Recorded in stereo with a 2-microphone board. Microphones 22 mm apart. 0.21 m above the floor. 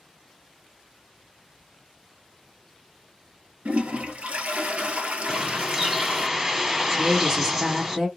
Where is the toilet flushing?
85° right, 0.9 m.